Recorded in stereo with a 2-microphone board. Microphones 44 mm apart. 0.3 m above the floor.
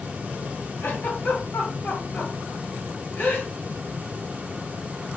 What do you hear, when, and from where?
0.8 s a giggle: 50° left (ahead or behind), 2.0 m